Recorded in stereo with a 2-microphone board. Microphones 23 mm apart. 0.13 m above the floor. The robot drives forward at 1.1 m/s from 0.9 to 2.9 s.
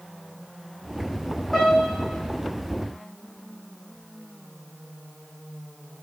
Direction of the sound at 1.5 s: 10° left (ahead or behind).